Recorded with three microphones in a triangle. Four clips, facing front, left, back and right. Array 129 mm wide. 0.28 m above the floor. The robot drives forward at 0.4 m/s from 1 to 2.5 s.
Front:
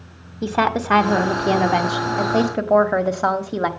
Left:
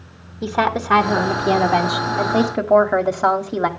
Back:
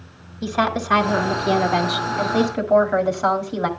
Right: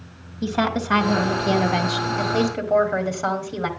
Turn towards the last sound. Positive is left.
turn(degrees=55)